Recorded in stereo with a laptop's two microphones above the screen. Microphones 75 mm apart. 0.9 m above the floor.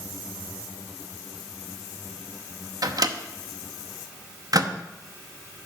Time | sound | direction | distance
2.8 | a microwave | 55° right (ahead or behind) | 0.8 m